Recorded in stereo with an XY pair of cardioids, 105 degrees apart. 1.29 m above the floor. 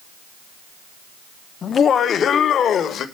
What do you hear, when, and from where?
1.6 s laughter: 50° left, 1.0 m; by 3.0 s 60° left, 1.7 m